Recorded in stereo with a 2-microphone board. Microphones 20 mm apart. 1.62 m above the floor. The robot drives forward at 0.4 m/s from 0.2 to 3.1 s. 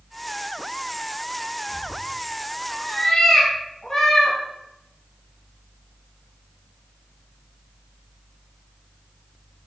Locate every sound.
1.7 s a cat meowing: 30° left (ahead or behind), 1.0 m